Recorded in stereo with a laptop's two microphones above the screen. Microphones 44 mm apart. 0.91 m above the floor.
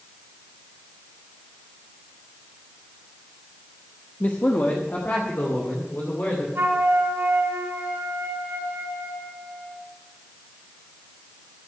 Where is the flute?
65° right (ahead or behind), 2.5 m.